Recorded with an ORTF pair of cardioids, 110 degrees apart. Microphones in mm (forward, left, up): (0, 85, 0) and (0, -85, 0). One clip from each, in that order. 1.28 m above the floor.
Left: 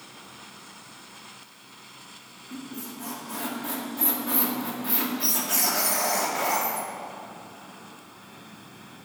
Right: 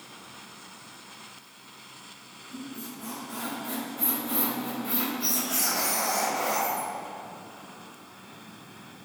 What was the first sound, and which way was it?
A squeak, 55° left.